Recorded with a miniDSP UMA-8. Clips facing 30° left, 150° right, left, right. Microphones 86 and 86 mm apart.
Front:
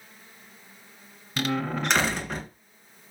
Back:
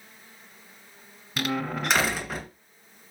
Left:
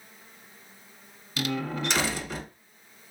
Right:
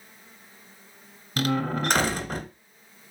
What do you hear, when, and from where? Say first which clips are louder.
1.4 s a door slam: front 1 dB, right 4 dB; 65° right, 1.7 m